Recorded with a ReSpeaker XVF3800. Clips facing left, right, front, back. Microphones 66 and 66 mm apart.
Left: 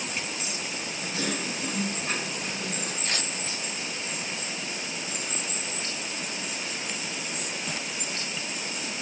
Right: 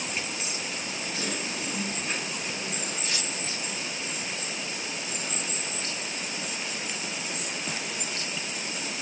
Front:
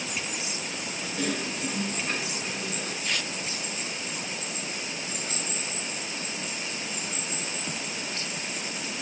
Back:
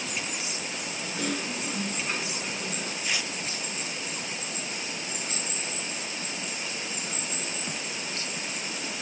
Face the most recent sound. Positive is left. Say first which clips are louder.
# left 1 dB, even
turn(degrees=100)